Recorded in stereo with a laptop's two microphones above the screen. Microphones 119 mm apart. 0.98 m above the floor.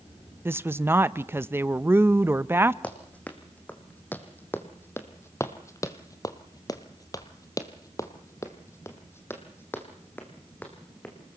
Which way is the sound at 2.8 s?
10° left (ahead or behind).